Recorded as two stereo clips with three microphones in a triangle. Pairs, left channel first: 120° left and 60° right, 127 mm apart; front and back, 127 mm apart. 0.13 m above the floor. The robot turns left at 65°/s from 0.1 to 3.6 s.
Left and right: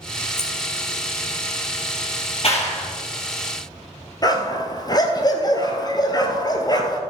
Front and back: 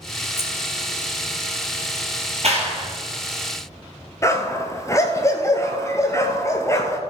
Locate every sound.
0.4 s keys jangling: 35° left, 3 m; by 0.5 s 30° left, 3 m
2.4 s a clap: 155° left, 3.5 m; by 2.9 s 125° left, 3.5 m
4.2 s a dog barking: 65° left, 1.3 m